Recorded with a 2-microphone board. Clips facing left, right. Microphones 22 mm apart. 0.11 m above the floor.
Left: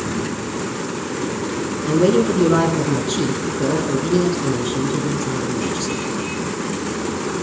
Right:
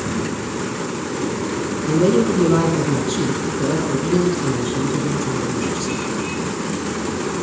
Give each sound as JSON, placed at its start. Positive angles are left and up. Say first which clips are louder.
{"t": 1.9, "sound": "a woman speaking", "louder": "left 1 dB", "side_deg": 15, "distance_m": 1.5}